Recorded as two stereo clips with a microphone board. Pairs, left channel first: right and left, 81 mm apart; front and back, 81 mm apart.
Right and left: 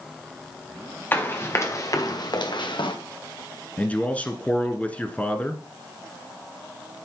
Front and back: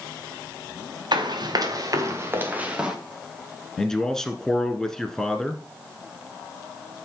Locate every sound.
1.1 s running footsteps: 155° right, 2.5 m; by 3.0 s 100° right, 2 m
3.8 s a man speaking: 70° right, 1.1 m